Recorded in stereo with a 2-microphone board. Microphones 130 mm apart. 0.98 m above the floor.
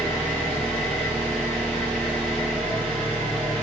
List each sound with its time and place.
0.0 s an engine running: 15° left (ahead or behind), 1.3 m